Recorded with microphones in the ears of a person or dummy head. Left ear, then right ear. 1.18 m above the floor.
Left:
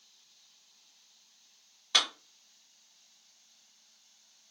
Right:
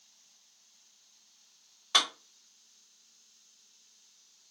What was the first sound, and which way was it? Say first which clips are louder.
A clap: even; 15° right (ahead or behind).